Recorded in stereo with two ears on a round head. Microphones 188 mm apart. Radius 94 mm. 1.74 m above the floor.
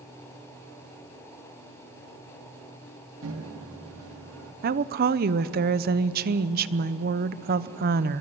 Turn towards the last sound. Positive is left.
turn(degrees=-45)  # may be behind; listen again after turning